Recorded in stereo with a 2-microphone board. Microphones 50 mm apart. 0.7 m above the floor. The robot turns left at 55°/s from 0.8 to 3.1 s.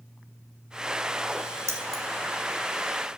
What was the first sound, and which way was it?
Keys jangling, 80° right.